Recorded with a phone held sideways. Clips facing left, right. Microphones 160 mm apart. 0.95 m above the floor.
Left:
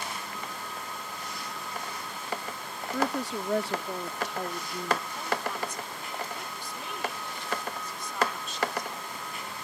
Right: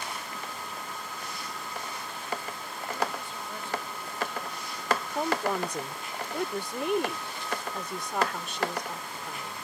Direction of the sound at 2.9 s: 75° left (ahead or behind).